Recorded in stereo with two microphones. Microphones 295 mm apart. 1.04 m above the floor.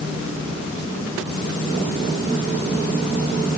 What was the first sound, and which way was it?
Only background noise.